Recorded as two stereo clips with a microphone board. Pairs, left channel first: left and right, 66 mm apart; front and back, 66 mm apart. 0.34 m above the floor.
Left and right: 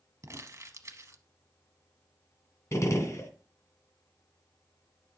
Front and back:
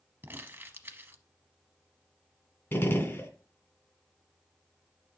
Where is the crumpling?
120° right, 0.9 m.